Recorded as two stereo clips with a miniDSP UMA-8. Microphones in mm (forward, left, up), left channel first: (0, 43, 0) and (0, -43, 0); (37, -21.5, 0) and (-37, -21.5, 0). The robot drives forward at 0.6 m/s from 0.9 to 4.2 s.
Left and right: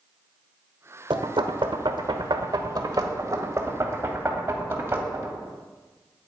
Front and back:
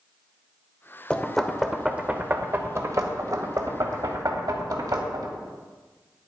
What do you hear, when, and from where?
1.1 s knocking: 75° right, 1.1 m; by 5.3 s 150° right, 1.9 m